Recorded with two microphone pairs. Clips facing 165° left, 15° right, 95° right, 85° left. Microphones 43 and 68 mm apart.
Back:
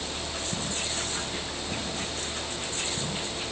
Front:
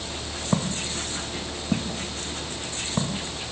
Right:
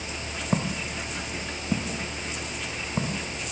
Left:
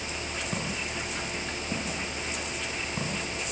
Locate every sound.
0.5 s footsteps: 40° right, 3.5 m; by 3.2 s 30° right, 5.5 m